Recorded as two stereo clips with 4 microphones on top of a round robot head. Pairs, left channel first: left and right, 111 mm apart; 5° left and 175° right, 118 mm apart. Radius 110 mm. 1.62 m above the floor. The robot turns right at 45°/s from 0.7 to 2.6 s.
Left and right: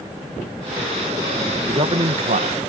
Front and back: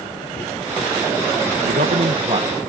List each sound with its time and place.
1.6 s a man speaking: 150° right; by 2.6 s 110° right